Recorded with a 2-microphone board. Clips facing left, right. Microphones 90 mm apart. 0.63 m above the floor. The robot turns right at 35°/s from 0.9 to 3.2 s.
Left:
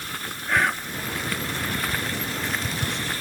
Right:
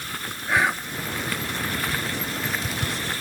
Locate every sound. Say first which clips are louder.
0.5 s whispering: right 1 dB; 5° right (ahead or behind), 0.7 m